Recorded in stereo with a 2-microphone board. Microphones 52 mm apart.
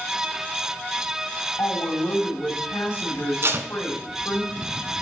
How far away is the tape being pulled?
About 0.9 m.